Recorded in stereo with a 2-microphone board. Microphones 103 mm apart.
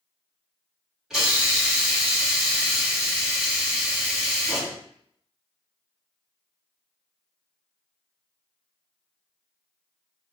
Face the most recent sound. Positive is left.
turn(degrees=-5)  # may be behind; listen again after turning